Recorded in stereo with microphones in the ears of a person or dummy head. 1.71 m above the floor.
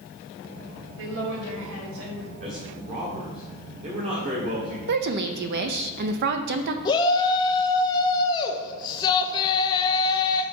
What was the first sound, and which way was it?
A woman speaking, 75° right (ahead or behind).